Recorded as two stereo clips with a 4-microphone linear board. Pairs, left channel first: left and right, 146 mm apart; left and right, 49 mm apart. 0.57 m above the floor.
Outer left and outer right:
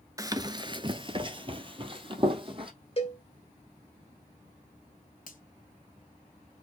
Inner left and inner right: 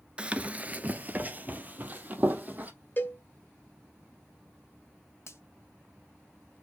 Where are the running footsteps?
25° right (ahead or behind), 0.5 m; by 2.7 s 35° right (ahead or behind), 1.6 m.